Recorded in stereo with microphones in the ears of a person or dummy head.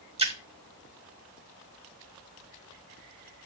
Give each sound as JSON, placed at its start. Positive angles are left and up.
{"t": 0.2, "sound": "a splash", "side_deg": -30, "distance_m": 1.3}